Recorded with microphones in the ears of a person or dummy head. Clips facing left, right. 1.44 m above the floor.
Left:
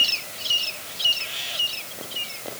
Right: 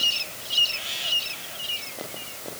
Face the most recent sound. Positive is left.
No sound to turn to.